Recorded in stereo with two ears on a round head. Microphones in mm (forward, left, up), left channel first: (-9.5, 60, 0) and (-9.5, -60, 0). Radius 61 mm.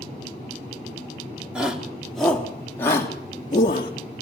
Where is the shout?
10° right (ahead or behind), 4.5 m; by 3.9 s 40° left (ahead or behind), 4 m.